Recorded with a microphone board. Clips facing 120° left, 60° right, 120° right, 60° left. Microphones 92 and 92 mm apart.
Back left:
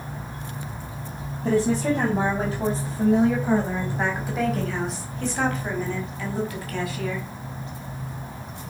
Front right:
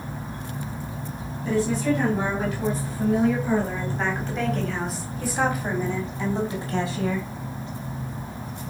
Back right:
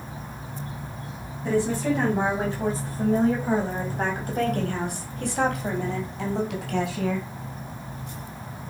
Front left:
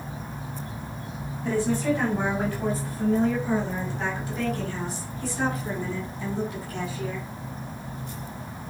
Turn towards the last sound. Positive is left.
turn(degrees=-120)